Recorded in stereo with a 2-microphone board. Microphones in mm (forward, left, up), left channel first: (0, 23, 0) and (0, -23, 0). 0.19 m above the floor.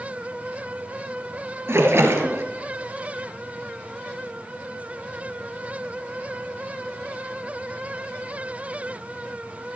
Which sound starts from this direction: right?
A splash, at 1.7 s.